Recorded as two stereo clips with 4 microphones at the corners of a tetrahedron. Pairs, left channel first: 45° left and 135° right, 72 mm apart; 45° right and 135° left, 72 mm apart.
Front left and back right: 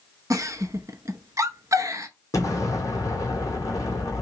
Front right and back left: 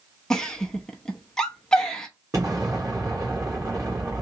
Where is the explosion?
90° left, 1.3 m.